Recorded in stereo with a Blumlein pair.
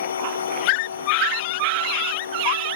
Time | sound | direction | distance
0.0 | a machine running | 70° left | ?